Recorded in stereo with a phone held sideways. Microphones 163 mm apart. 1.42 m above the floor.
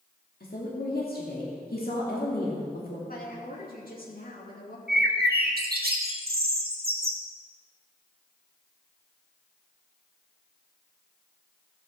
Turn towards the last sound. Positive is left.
turn(degrees=-85)